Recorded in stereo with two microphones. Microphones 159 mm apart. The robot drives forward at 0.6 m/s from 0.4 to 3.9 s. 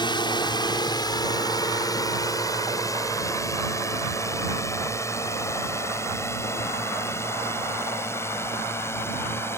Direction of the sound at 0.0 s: 30° left (ahead or behind).